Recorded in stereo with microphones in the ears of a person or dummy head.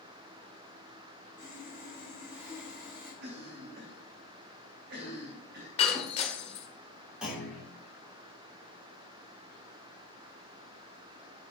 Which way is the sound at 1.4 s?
Centre (ahead or behind).